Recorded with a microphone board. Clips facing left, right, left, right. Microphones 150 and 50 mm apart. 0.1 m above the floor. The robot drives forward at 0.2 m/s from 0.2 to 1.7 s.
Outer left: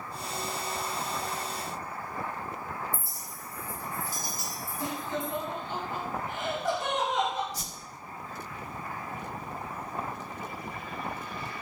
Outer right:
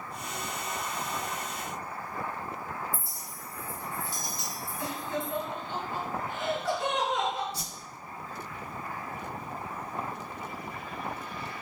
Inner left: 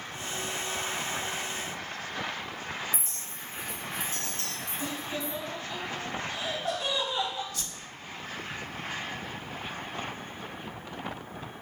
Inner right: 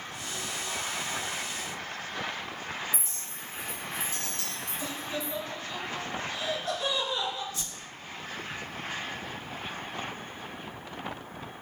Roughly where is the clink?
Left.